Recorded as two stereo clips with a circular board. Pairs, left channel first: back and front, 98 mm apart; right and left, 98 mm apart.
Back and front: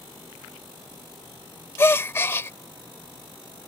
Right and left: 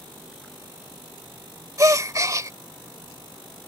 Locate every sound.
1.8 s a gasp: 125° left